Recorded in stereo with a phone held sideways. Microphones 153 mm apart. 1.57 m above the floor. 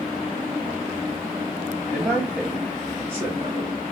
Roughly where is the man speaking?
Centre.